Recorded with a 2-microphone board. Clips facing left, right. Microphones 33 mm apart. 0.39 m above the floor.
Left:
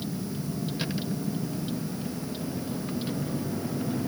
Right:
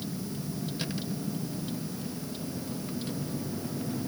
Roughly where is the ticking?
No ticking in this recording.